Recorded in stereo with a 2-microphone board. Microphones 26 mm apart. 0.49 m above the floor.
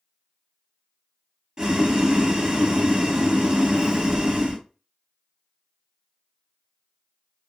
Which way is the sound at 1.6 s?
30° right (ahead or behind).